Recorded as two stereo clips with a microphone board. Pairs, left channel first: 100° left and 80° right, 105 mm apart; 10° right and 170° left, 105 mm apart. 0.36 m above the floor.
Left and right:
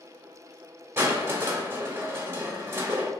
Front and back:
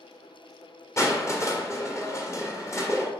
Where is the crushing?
35° right, 1.5 m.